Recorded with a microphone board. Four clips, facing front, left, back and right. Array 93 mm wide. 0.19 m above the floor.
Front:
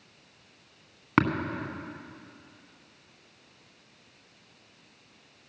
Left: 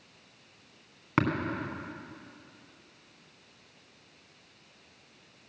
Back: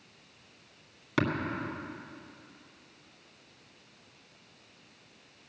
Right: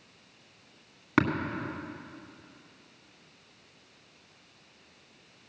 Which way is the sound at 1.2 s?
10° right.